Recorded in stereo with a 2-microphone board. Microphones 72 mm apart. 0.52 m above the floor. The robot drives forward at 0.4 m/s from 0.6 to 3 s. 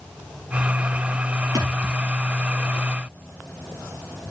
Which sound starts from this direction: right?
A thud, at 1.6 s.